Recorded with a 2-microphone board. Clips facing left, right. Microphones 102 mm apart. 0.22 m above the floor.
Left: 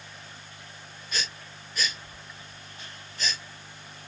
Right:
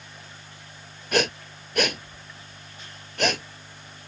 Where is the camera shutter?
No camera shutter in this recording.